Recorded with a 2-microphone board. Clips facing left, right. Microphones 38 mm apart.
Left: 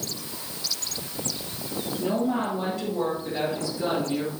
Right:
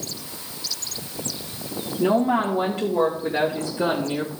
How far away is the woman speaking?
About 1.9 m.